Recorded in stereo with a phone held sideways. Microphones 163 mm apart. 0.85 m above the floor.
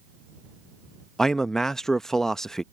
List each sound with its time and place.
1.2 s a man speaking: 5° left (ahead or behind)